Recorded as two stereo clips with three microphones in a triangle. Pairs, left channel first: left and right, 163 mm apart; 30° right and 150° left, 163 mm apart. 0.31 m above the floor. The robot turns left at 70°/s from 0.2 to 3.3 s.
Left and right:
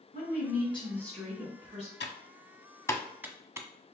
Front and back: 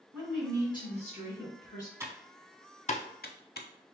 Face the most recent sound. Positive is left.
turn(degrees=-15)